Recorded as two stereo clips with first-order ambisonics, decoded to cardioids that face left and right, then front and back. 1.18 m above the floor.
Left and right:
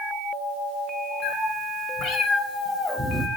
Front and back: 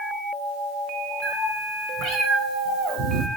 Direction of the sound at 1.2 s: 130° left.